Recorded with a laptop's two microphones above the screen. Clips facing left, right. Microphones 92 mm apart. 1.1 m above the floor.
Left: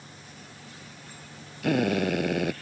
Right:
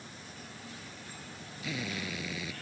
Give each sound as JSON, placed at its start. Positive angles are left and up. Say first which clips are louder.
{"t": 1.6, "sound": "a drill", "louder": "left 14 dB", "side_deg": 65}